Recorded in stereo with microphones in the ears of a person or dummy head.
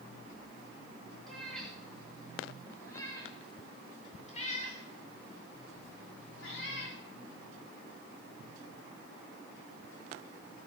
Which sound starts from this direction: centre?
A cat meowing, at 1.3 s.